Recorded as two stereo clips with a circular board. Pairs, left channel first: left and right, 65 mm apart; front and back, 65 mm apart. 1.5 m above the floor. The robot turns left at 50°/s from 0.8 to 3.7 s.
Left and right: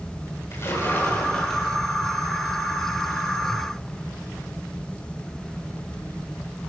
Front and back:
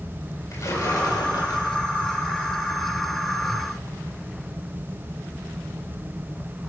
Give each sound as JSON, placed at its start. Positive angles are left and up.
{"t": 0.5, "sound": "a splash", "azimuth_deg": 40, "distance_m": 7.5}